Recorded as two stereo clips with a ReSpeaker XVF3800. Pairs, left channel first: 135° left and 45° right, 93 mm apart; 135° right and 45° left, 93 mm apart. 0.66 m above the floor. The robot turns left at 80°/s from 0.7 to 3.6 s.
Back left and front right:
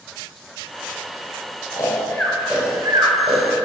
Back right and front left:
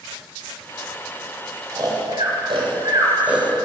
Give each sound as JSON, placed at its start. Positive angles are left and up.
{"t": 1.7, "sound": "snoring", "azimuth_deg": 100, "distance_m": 3.5}